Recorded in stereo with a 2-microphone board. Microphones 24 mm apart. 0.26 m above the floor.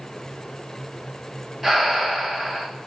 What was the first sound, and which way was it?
Breathing, centre (ahead or behind).